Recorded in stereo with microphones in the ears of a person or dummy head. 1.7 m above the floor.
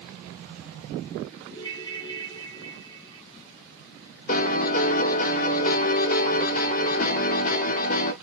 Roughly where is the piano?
Left.